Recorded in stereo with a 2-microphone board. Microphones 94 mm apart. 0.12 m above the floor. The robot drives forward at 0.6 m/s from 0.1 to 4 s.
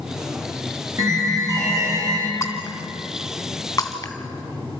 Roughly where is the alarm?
Right.